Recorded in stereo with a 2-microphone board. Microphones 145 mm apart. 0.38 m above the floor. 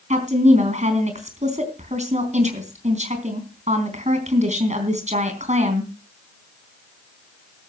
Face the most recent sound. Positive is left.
turn(degrees=-50)  # may be behind; listen again after turning